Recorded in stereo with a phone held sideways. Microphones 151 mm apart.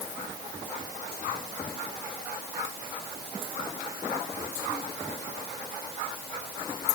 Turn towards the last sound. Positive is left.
No sound to turn to.